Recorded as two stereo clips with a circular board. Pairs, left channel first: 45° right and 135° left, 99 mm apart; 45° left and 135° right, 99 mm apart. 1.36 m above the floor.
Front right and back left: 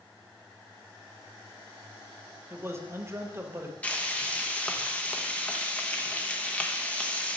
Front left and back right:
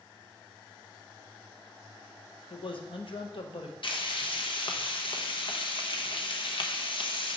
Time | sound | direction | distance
2.5 | a man speaking | 70° left | 0.9 m
3.8 | frying | 30° left | 0.8 m